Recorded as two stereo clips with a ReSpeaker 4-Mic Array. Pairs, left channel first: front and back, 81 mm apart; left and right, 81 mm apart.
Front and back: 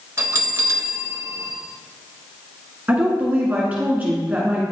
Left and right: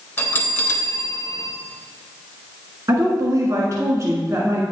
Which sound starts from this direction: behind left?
A bell, at 0.2 s.